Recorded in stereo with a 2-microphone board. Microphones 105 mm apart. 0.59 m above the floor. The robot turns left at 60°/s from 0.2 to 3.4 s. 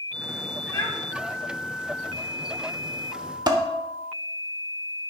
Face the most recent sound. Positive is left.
turn(degrees=-45)  # may be behind; listen again after turning